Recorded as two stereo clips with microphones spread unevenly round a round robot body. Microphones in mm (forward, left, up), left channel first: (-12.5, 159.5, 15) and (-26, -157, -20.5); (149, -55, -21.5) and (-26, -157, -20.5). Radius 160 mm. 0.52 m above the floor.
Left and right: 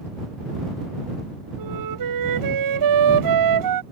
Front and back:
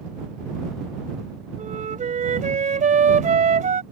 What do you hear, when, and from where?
1.6 s a flute: 100° right